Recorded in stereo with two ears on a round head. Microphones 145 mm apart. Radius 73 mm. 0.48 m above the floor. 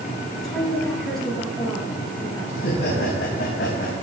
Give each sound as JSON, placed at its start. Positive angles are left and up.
{"t": 0.3, "sound": "a woman speaking", "side_deg": 5, "distance_m": 9.5}
{"t": 2.5, "sound": "laughter", "side_deg": 75, "distance_m": 4.5}